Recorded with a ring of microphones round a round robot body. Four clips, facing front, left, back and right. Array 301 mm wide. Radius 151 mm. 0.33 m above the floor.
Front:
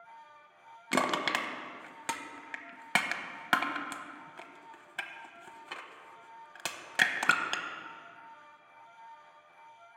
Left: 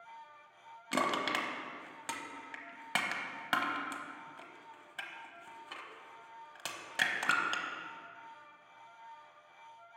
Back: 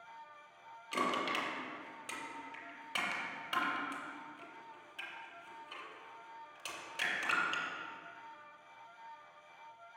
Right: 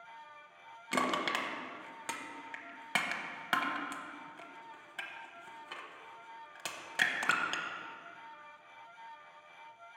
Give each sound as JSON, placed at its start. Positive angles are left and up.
{"t": 0.9, "sound": "crushing", "azimuth_deg": 0, "distance_m": 1.0}